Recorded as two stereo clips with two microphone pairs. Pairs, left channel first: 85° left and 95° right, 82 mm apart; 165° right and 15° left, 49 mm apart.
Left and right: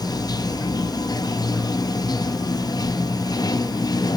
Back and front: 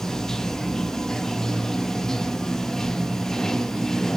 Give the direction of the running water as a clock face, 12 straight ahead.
8 o'clock.